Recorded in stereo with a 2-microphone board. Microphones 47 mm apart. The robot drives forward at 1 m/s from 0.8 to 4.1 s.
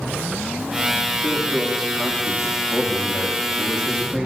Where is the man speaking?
5° left (ahead or behind), 10 m; by 4.3 s 10° left (ahead or behind), 7 m.